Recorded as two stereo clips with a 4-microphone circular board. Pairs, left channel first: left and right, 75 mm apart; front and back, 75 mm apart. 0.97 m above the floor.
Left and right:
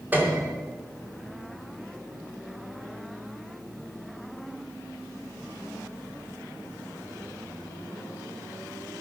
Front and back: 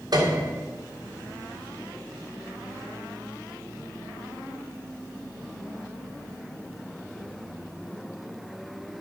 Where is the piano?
155° right, 3 m.